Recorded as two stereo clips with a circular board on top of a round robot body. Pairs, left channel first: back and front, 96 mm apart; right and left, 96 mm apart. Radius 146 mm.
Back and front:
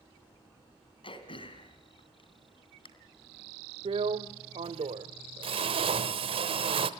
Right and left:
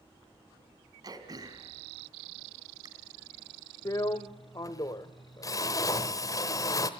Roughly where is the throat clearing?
Behind left.